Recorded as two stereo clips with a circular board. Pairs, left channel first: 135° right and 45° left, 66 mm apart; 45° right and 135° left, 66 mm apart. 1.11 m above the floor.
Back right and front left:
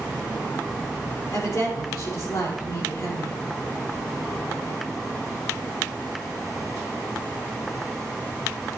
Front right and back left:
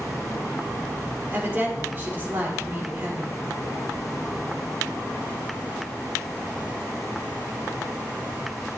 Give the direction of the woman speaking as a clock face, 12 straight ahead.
6 o'clock.